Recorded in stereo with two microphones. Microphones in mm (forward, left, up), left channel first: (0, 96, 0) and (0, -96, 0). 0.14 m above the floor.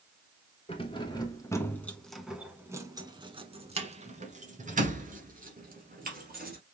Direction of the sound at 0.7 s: 30° left (ahead or behind).